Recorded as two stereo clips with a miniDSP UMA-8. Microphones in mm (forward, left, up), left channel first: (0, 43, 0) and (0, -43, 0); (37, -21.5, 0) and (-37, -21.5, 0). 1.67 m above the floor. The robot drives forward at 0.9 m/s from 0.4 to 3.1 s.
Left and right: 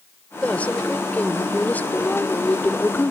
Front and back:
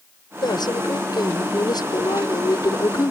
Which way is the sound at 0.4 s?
15° left.